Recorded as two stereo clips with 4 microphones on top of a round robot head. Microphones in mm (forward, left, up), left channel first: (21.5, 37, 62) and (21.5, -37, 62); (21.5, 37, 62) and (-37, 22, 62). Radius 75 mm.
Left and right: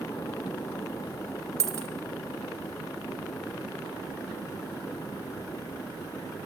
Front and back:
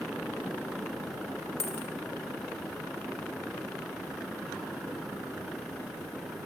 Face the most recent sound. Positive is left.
turn(degrees=-40)